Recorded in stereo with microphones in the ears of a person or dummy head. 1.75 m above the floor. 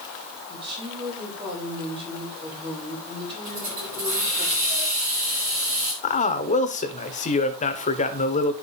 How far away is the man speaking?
About 1.1 m.